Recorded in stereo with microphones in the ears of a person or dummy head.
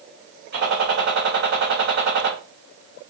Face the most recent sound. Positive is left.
turn(degrees=-50)  # may be behind; listen again after turning